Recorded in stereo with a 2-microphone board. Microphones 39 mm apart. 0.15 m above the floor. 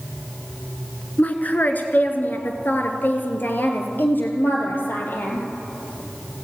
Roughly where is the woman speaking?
Left.